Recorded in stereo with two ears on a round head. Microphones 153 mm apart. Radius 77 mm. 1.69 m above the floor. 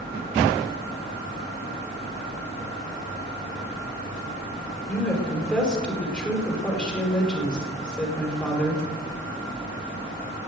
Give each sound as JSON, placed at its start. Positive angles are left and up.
{"t": 4.9, "sound": "a woman speaking", "side_deg": 5, "distance_m": 5.0}